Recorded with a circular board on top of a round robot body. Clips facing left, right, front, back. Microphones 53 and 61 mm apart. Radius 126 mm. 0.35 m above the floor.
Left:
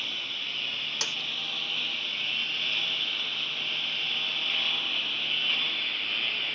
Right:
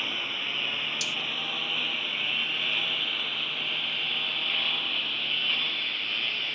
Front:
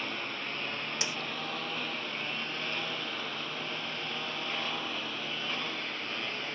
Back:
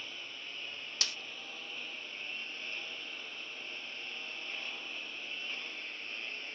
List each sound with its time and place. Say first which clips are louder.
0.0 s a lawn mower: right 3 dB, front 10 dB; 25° right; by 6.5 s straight ahead
1.0 s a snare drum: right 1 dB, front 2 dB; 65° left